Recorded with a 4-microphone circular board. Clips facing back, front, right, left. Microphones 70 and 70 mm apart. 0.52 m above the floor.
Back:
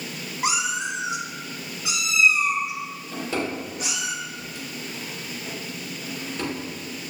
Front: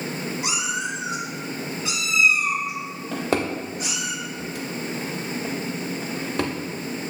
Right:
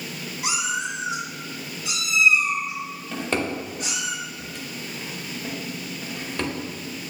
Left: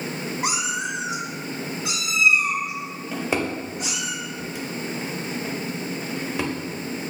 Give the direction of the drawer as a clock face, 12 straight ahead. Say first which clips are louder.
Front 4 dB, left 1 dB; 12 o'clock.